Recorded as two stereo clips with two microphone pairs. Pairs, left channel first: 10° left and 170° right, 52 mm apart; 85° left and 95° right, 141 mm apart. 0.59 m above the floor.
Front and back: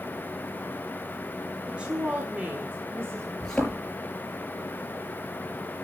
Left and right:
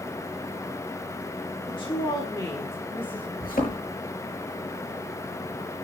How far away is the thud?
About 5.5 m.